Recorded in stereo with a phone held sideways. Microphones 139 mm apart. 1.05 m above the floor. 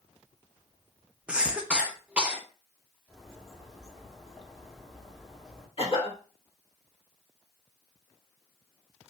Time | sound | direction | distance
1.3 | a cough | 10° right (ahead or behind) | 0.7 m
3.1 | a bird | 5° left (ahead or behind) | 0.8 m
5.8 | a cough | 45° left (ahead or behind) | 1.7 m